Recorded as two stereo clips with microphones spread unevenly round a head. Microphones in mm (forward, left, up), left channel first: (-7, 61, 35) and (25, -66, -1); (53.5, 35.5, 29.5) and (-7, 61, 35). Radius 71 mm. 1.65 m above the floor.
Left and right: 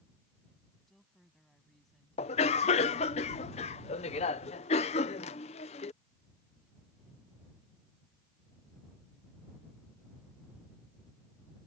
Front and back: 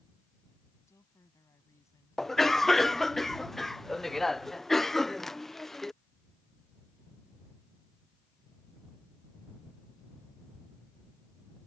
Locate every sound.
0.9 s a woman speaking: 15° left
2.2 s a cough: 65° left